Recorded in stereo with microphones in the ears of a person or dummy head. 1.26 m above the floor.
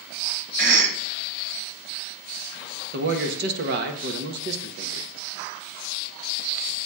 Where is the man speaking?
60° right (ahead or behind), 1.2 m.